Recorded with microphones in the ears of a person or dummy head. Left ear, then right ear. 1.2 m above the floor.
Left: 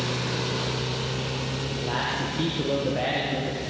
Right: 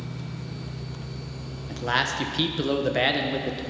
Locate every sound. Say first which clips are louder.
1.7 s a man speaking: right 5 dB; 60° right (ahead or behind), 1.1 m